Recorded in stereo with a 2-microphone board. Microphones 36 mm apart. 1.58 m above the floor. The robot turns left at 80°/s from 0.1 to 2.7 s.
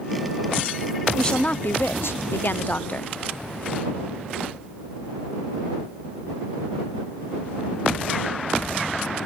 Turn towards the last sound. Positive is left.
turn(degrees=45)